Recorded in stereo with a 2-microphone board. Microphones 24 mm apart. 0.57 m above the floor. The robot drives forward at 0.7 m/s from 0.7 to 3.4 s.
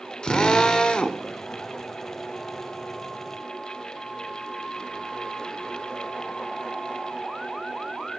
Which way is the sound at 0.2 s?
35° left (ahead or behind).